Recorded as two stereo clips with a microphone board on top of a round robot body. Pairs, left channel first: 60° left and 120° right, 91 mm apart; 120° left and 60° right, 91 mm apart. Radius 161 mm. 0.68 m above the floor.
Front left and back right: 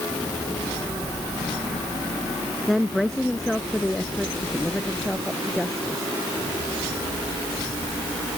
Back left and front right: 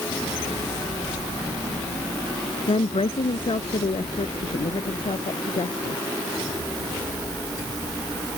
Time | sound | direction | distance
2.7 | a woman speaking | 150° left | ?